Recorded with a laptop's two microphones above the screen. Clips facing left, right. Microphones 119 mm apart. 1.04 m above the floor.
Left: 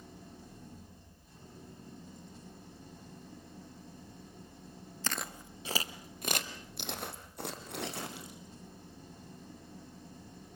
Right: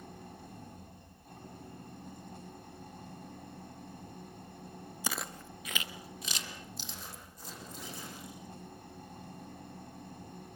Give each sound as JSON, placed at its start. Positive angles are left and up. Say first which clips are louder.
{"t": 0.0, "sound": "an engine running", "louder": "right 3 dB", "side_deg": -65, "distance_m": 6.0}
{"t": 5.0, "sound": "footsteps", "louder": "even", "side_deg": -15, "distance_m": 1.1}